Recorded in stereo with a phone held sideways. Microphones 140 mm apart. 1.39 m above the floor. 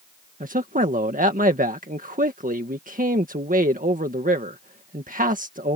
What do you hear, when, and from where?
0.4 s a man speaking: 75° right (ahead or behind)